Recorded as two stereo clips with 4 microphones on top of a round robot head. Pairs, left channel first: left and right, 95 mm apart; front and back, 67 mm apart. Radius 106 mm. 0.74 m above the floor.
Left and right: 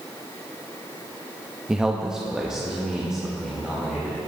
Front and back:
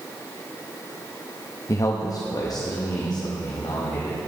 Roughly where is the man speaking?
Ahead.